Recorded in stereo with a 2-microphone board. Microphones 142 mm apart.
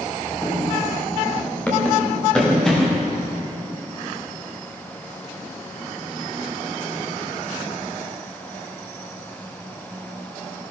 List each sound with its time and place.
0.4 s running footsteps: 20° left (ahead or behind), 5 m; by 3.1 s 5° left (ahead or behind), 7.5 m